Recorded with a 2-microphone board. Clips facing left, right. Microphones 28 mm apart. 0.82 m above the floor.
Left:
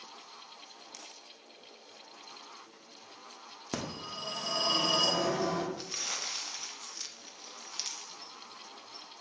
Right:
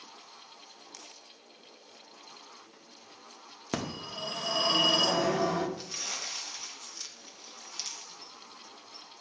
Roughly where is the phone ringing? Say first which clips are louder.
Right 3 dB; right.